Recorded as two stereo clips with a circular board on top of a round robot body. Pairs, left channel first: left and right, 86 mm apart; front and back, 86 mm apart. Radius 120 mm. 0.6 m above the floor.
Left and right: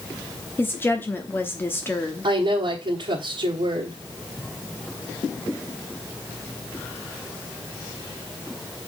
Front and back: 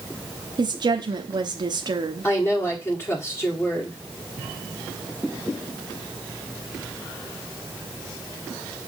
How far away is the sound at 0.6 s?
About 1.1 m.